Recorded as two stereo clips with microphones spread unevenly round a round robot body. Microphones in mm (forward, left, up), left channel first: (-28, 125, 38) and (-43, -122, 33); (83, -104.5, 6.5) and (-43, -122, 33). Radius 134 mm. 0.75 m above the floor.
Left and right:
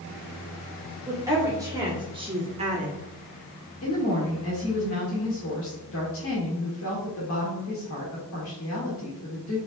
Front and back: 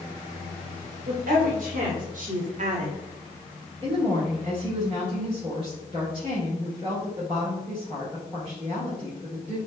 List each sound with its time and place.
1.1 s a woman speaking: 175° right, 2 m; by 3.0 s 145° right, 1.2 m
3.8 s a woman speaking: 115° left, 2.5 m